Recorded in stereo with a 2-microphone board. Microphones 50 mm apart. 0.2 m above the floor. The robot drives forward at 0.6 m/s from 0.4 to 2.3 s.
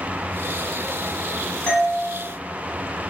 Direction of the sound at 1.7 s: 20° left (ahead or behind).